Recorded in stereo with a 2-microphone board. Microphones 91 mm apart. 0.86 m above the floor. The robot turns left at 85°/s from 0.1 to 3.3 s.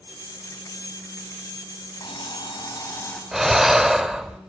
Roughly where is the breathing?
Centre.